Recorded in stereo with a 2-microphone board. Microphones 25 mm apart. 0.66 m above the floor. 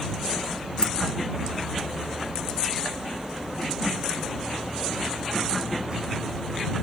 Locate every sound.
0.8 s keys jangling: 35° left (ahead or behind)